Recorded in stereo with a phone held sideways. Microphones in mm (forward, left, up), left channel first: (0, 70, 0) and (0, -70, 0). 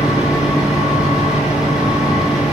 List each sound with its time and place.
0.0 s a fan: 5° right (ahead or behind), 0.9 m